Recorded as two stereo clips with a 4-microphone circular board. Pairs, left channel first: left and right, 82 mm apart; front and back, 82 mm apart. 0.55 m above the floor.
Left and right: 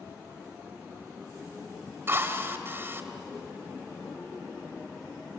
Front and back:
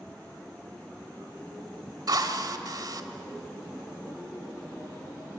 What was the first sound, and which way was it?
A drill, 145° right.